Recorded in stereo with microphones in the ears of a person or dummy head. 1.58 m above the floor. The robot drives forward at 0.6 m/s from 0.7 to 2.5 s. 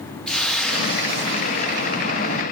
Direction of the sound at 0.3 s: 5° left (ahead or behind).